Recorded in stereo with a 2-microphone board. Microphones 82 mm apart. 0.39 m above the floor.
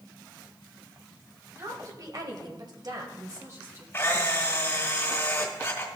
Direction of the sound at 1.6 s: 40° right (ahead or behind).